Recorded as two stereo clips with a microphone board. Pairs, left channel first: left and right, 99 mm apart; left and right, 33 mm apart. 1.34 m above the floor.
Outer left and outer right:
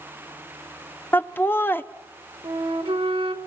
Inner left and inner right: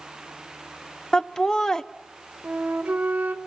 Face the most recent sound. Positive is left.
turn(degrees=-60)  # may be behind; listen again after turning